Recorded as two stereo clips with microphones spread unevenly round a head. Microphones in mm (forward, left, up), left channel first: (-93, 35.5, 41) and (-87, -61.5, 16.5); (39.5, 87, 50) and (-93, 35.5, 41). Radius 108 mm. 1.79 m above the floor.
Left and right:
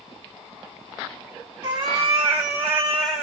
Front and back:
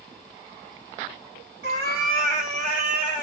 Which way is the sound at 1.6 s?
130° right.